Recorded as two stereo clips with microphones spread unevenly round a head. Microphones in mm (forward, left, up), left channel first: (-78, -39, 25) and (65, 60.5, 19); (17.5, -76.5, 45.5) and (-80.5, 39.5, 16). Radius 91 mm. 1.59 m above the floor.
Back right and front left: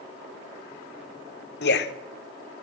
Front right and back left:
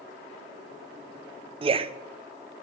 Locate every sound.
1.6 s a man speaking: 170° right, 0.8 m